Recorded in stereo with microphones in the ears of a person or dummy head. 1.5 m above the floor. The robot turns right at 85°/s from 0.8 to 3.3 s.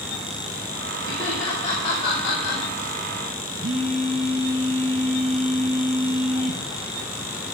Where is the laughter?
15° right (ahead or behind), 5.5 m; by 2.6 s 65° left (ahead or behind), 5.5 m.